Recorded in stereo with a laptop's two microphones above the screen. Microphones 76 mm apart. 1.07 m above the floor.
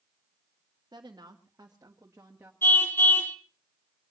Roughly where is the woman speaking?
Right.